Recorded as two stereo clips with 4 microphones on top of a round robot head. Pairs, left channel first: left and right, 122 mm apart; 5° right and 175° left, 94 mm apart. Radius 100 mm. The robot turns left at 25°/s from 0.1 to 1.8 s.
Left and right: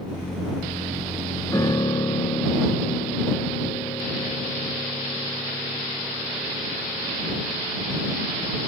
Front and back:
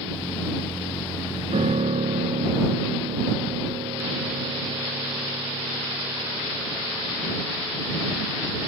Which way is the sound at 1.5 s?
160° left.